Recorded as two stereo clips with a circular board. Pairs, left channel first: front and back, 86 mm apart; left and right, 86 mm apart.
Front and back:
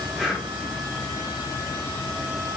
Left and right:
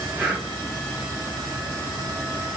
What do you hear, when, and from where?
0.2 s breathing: 105° right, 1.4 m